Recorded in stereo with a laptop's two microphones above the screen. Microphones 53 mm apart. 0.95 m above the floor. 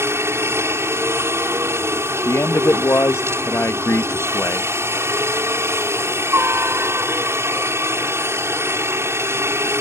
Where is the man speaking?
55° left (ahead or behind).